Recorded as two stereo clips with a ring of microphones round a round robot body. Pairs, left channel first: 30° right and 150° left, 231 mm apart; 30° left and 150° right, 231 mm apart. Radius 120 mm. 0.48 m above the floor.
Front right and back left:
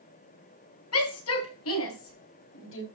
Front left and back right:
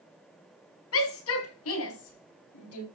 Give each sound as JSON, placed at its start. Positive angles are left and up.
{"t": 0.9, "sound": "a shout", "azimuth_deg": -5, "distance_m": 4.5}